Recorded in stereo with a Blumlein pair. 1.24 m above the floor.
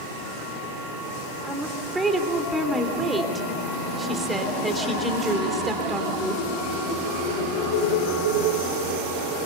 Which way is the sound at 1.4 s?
10° right.